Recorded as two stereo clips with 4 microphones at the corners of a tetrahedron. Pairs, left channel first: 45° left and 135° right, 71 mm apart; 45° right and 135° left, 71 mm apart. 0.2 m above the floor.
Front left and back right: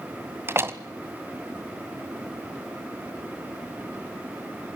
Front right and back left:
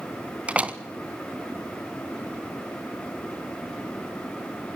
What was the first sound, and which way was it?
A door slam, 165° right.